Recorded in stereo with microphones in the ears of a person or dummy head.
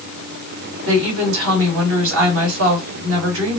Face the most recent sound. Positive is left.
turn(degrees=-70)  # may be behind; listen again after turning